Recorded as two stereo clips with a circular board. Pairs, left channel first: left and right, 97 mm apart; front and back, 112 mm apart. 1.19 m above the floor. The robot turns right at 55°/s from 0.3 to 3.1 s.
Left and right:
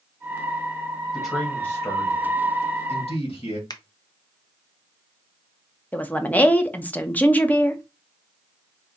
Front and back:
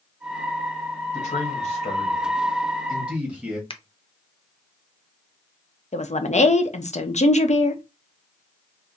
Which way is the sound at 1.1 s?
5° right.